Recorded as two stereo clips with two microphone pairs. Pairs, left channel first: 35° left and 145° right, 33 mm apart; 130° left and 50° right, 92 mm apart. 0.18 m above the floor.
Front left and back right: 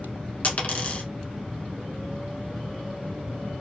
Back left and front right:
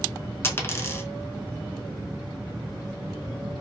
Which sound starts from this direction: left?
A dropped coin, at 0.4 s.